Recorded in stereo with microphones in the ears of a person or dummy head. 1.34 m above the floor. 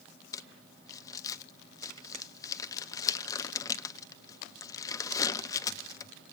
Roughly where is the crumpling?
Left.